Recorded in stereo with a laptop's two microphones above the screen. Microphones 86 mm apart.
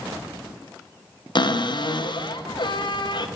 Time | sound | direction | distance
1.4 | a cupboard door | 60° left (ahead or behind) | 0.5 m